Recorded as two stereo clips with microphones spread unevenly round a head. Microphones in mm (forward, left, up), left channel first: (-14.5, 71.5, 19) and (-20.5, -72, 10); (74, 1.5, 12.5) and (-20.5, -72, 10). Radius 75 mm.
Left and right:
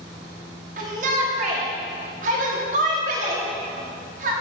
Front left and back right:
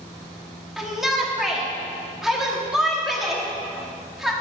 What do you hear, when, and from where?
0.8 s a shout: 55° right, 1.2 m